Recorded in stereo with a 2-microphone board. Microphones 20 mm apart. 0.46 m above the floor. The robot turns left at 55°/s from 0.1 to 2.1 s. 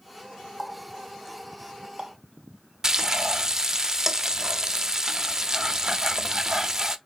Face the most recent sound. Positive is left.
turn(degrees=-30)  # may be behind; listen again after turning